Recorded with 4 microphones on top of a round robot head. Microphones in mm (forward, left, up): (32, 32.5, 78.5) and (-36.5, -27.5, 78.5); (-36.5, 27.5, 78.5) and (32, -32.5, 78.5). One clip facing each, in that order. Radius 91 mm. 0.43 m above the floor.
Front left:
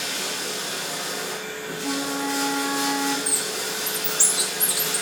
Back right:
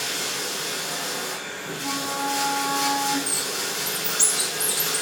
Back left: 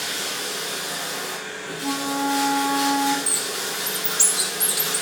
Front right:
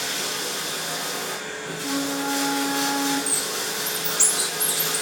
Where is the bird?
125° left, 2.5 m.